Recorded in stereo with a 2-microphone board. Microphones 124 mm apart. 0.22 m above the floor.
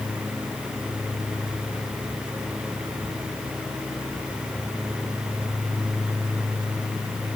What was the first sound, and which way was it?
Only background noise.